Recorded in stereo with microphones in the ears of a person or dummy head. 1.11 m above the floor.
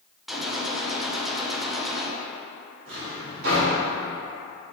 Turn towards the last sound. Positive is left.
turn(degrees=-75)  # may be behind; listen again after turning